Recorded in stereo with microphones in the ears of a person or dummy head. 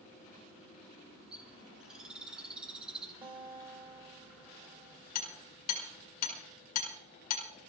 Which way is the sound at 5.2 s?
50° left (ahead or behind).